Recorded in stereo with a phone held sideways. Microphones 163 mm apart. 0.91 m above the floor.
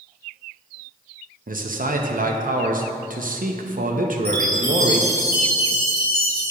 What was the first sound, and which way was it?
A man speaking, 60° right (ahead or behind).